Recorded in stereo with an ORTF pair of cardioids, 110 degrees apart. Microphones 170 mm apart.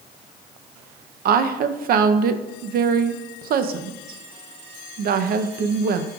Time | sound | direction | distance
1.2 | a woman speaking | 60° right | 0.7 m